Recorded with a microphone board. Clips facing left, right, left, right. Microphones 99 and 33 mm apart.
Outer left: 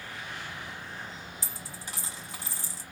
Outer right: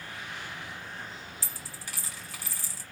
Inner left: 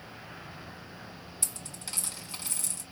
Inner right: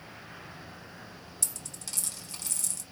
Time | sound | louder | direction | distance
1.4 | a dropped coin | outer left 1 dB, even | 20° left (ahead or behind) | 1.1 m